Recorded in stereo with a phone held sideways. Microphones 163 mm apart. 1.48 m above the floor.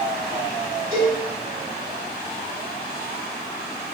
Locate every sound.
0.9 s a cowbell: 45° left (ahead or behind), 1.8 m